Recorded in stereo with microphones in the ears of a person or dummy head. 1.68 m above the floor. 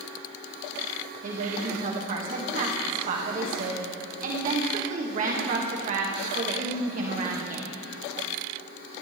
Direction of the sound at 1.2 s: 45° right (ahead or behind).